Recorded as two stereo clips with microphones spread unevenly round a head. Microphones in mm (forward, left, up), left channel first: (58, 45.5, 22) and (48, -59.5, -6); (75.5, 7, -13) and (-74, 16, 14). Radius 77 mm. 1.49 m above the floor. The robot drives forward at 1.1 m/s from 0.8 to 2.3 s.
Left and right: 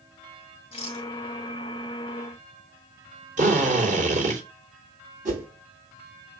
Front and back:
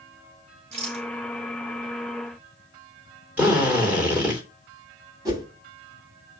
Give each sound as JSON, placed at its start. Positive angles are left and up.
{"t": 0.7, "sound": "a rattle", "azimuth_deg": 135, "distance_m": 3.5}
{"t": 3.4, "sound": "a drill", "azimuth_deg": -105, "distance_m": 3.5}
{"t": 5.2, "sound": "a whoosh", "azimuth_deg": -125, "distance_m": 3.0}